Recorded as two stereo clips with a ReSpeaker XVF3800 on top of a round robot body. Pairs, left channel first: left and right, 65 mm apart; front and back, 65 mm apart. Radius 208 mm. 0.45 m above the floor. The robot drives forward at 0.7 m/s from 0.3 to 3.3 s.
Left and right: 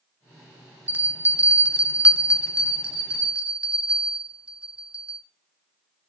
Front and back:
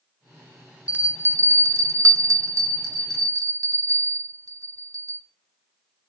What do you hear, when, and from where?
0.9 s a bell: 125° right, 1.1 m; by 5.2 s 170° right, 2 m